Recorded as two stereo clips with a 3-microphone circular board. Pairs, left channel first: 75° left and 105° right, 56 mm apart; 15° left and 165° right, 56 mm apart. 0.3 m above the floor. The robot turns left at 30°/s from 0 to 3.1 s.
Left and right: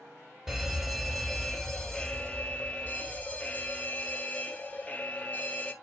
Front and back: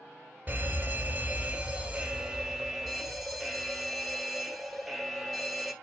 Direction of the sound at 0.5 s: 170° right.